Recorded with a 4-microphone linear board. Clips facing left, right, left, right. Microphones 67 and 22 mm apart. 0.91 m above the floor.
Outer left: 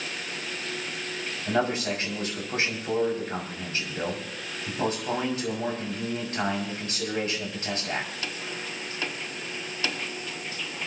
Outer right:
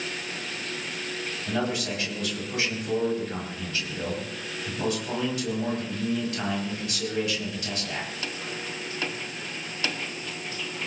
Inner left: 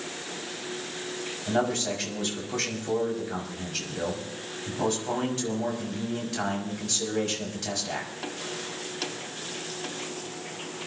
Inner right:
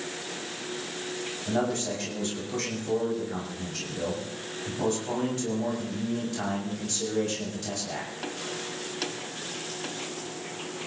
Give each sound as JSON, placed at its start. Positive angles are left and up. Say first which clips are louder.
{"t": 1.5, "sound": "a man speaking", "louder": "outer left 3 dB, inner left 2 dB", "side_deg": 30, "distance_m": 5.5}